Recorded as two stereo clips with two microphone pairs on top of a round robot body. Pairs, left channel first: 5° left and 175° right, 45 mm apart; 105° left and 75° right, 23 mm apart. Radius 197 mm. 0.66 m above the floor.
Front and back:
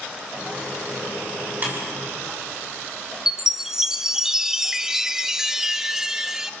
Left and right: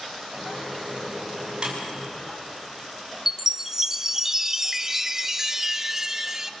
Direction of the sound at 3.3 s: 135° right.